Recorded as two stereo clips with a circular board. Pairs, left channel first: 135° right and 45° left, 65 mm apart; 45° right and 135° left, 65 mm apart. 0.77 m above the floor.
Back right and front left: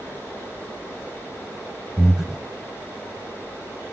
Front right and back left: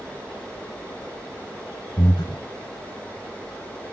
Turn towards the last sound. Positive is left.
turn(degrees=-40)